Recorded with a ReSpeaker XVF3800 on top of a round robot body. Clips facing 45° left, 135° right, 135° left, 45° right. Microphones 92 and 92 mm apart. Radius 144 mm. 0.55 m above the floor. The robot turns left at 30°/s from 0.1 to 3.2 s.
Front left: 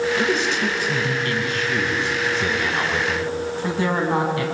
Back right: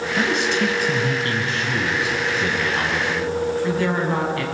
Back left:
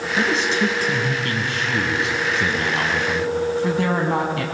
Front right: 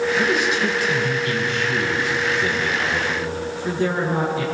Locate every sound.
0.2 s a man speaking: 155° right, 4.5 m; by 4.4 s 115° left, 4.5 m